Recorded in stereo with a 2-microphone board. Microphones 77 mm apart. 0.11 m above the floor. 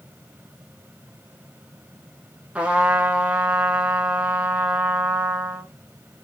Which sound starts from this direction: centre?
A trumpet, at 2.5 s.